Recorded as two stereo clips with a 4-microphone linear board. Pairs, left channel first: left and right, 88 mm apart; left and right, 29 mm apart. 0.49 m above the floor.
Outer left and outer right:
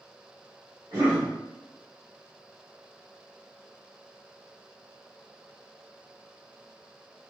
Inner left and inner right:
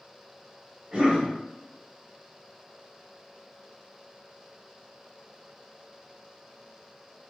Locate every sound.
0.9 s a cough: 30° right (ahead or behind), 1.2 m